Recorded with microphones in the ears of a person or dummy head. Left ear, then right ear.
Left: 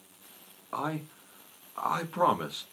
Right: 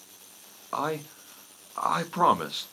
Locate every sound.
0.7 s a man speaking: 15° right (ahead or behind), 1.0 m